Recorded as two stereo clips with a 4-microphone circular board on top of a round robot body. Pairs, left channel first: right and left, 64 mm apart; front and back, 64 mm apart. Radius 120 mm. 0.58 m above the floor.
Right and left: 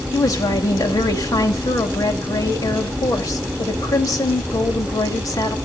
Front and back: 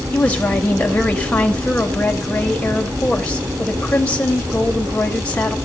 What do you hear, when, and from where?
0.1 s a woman speaking: 70° right, 3 m